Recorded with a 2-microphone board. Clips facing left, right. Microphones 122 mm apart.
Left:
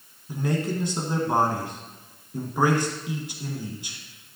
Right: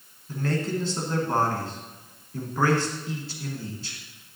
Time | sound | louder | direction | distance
0.3 | a man speaking | left 1 dB | 15° left (ahead or behind) | 1.5 m